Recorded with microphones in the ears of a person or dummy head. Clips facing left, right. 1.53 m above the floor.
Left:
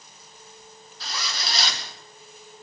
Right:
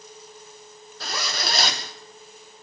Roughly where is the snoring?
No snoring in this recording.